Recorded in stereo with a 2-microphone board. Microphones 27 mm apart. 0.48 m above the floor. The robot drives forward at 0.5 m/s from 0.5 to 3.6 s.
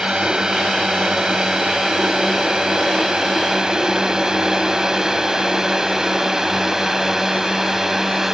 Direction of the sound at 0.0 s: 30° right (ahead or behind).